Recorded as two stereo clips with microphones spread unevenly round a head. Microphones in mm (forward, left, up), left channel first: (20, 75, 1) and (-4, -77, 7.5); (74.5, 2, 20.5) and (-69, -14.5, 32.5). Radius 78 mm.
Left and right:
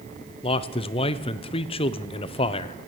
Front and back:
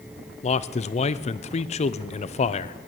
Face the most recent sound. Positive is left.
turn(degrees=35)